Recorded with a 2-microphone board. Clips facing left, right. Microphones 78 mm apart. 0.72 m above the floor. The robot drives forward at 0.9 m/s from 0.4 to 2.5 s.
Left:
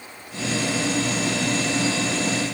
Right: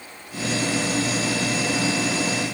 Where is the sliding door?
No sliding door in this recording.